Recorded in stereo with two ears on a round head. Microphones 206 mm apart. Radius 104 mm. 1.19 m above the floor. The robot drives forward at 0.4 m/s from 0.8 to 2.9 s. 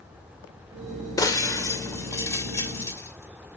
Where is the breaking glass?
15° left (ahead or behind), 2 m; by 3.6 s 10° left (ahead or behind), 2.5 m.